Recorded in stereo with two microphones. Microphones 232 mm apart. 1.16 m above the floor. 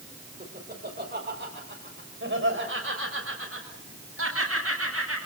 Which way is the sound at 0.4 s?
40° right (ahead or behind).